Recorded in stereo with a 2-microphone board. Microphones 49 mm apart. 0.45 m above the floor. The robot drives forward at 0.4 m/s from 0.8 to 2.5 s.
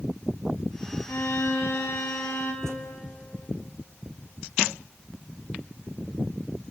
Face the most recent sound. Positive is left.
turn(degrees=10)  # may be behind; listen again after turning